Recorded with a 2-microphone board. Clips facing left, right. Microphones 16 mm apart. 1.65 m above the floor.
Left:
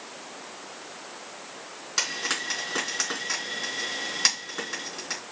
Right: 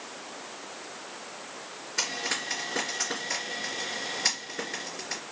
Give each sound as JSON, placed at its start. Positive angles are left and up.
{"t": 2.0, "sound": "frying", "side_deg": 90, "distance_m": 5.0}